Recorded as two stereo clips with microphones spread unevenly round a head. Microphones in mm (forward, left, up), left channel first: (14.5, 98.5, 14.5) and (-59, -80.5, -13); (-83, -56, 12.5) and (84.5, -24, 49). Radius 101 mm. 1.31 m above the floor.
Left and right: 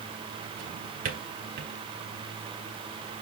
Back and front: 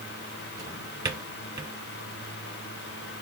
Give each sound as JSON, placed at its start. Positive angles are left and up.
{"t": 0.6, "sound": "a drawer", "azimuth_deg": -60, "distance_m": 3.0}